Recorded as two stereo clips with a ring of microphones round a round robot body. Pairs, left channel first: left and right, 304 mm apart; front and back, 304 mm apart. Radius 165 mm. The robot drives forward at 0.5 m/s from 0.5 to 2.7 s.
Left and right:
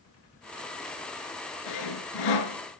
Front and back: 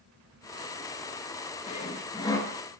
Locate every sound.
1.7 s sawing: 70° left, 2 m; by 2.6 s 85° left, 1.9 m